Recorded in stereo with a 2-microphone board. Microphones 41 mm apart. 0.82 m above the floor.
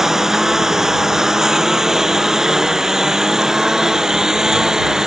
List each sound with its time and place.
0.0 s a lawn mower: 10° right (ahead or behind)